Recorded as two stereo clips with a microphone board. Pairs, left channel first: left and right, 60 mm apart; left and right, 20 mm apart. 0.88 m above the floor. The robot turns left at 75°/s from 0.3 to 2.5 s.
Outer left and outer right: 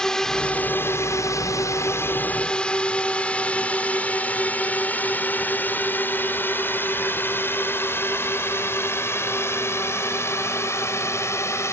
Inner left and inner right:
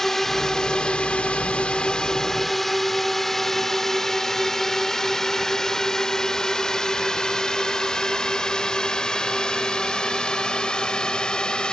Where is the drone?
10° left (ahead or behind); by 11.7 s 50° left (ahead or behind).